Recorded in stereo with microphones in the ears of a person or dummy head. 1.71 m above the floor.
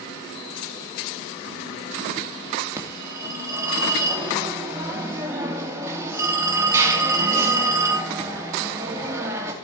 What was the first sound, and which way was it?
A phone ringing, 20° right (ahead or behind).